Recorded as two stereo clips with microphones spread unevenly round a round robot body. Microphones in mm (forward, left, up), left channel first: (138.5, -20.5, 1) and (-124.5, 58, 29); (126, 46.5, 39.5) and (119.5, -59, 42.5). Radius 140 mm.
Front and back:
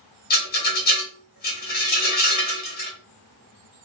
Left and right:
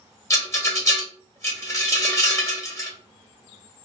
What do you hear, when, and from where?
0.3 s a rattle: 30° left, 1.5 m